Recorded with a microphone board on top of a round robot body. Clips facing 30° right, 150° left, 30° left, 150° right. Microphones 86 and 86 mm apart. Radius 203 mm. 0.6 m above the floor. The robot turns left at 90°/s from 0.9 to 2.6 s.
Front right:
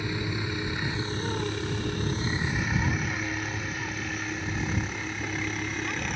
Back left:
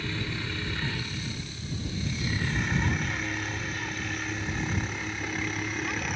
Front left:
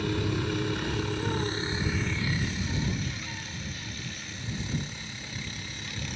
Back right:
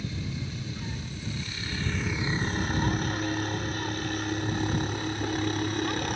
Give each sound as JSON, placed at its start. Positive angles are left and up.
{"t": 0.0, "sound": "a helicopter", "azimuth_deg": 45}